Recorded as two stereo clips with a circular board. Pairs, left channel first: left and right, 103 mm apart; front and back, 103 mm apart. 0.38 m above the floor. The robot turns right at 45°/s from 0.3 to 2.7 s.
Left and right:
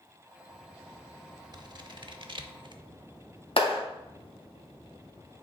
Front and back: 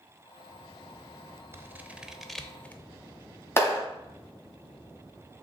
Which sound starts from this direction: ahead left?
A clap, at 3.6 s.